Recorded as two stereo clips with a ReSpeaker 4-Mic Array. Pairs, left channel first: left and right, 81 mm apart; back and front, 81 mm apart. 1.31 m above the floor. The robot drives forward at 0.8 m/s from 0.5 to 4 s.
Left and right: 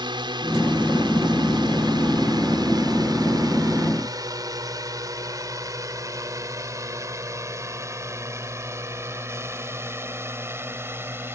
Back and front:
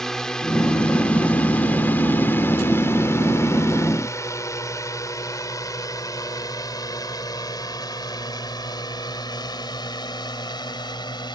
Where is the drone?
95° right; by 11.4 s 150° right.